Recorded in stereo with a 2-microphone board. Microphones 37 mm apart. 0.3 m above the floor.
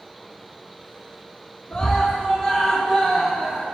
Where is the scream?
25° left (ahead or behind), 3 m; by 3.6 s 30° right (ahead or behind), 3.5 m.